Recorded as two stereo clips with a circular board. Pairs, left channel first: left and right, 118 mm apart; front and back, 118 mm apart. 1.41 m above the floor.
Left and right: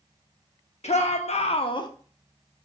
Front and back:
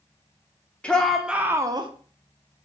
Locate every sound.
0.8 s a shout: 80° left, 0.8 m; by 1.9 s 140° left, 0.5 m